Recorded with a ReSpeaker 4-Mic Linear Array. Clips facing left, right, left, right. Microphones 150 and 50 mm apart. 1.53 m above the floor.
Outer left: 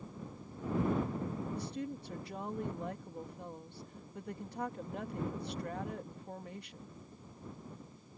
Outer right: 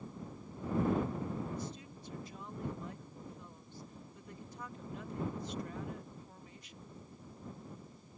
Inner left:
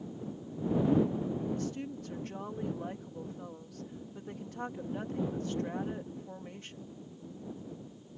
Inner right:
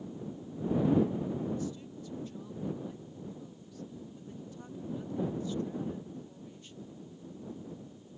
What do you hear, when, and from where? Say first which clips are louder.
1.6 s a woman speaking: outer left 5 dB, inner left 2 dB; 65° left (ahead or behind)